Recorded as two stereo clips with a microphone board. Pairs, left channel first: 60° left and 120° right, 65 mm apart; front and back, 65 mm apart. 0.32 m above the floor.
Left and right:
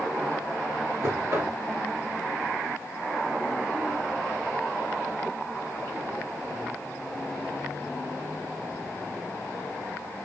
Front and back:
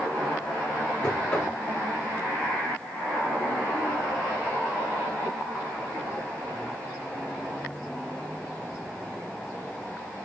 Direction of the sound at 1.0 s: 75° right.